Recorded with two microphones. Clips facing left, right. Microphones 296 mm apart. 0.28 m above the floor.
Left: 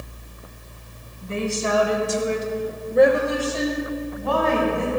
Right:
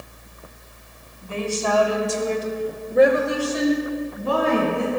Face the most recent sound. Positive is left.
turn(degrees=-30)  # may be behind; listen again after turning